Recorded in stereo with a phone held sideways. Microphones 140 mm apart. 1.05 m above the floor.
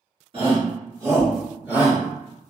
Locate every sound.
0.3 s a shout: 40° right (ahead or behind), 1.4 m; by 2.0 s 10° right (ahead or behind), 2 m